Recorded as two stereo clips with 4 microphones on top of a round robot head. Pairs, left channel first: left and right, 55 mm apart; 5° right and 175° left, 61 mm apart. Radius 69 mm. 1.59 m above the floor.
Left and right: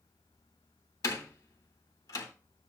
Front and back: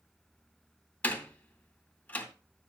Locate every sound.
1.0 s a door slam: 60° left, 2.5 m